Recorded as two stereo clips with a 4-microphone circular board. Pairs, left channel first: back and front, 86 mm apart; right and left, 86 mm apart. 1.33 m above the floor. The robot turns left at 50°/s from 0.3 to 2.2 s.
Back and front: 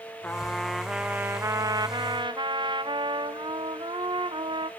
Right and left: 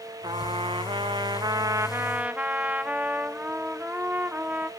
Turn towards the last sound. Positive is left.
turn(degrees=15)